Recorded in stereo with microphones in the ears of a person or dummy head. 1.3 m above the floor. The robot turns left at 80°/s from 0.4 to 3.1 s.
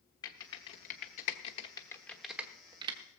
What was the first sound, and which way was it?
Typing on a keyboard, 20° left (ahead or behind).